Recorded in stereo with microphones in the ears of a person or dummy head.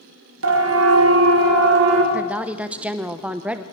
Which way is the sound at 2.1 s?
10° right (ahead or behind).